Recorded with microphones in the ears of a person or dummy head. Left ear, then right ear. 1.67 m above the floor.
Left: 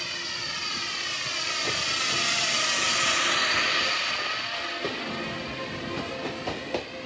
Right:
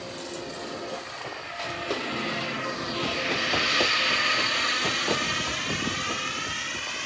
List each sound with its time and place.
0.0 s a drone: 70° left (ahead or behind); by 7.1 s 50° right (ahead or behind)